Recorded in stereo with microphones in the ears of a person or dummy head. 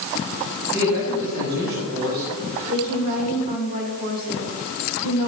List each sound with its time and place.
0.7 s a man speaking: 75° right (ahead or behind), 6.5 m
2.7 s a woman speaking: 40° right (ahead or behind), 6 m